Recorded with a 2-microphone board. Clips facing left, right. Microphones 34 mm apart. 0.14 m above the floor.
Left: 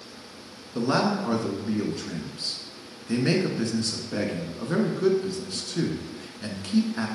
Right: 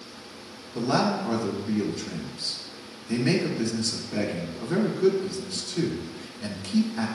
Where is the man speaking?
25° left (ahead or behind), 1.6 m.